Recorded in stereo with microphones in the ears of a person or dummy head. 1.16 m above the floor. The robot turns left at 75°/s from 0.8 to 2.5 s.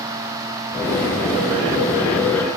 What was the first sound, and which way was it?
Only background noise.